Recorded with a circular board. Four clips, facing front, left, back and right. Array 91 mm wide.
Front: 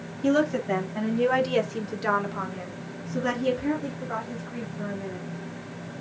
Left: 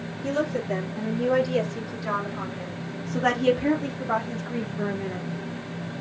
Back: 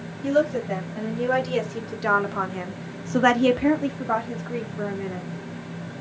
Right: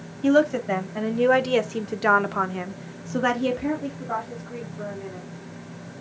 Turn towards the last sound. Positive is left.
turn(degrees=145)